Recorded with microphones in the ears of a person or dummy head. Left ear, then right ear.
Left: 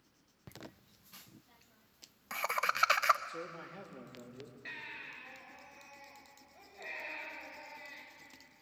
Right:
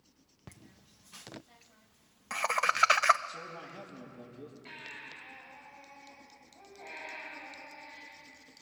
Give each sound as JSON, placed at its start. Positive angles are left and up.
{"t": 0.5, "sound": "laughter", "side_deg": 0, "distance_m": 0.5}
{"t": 3.3, "sound": "a man speaking", "side_deg": 35, "distance_m": 3.5}
{"t": 4.7, "sound": "a baby crying", "side_deg": 75, "distance_m": 9.0}